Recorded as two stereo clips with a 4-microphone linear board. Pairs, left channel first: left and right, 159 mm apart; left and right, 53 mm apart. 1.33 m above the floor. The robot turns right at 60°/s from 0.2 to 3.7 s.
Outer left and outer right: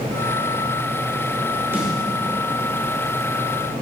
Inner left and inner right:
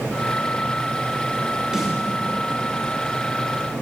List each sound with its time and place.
1.7 s a snare drum: 15° right (ahead or behind), 4 m; by 1.9 s 5° right (ahead or behind), 4 m